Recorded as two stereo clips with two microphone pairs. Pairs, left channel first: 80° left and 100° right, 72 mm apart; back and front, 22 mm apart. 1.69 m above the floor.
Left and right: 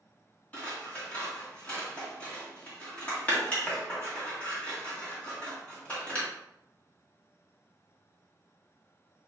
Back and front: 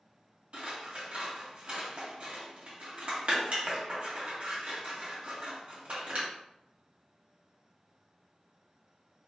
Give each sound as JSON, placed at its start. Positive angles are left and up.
{"t": 0.5, "sound": "scissors", "azimuth_deg": 10, "distance_m": 1.8}